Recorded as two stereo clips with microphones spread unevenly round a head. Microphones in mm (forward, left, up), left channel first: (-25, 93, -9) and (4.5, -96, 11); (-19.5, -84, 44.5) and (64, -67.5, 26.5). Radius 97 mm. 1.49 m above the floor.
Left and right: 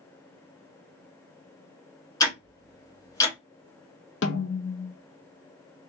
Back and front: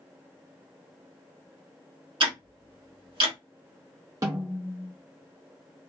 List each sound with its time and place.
2.2 s ticking: 25° left, 0.8 m
4.2 s a snare drum: 65° left, 0.6 m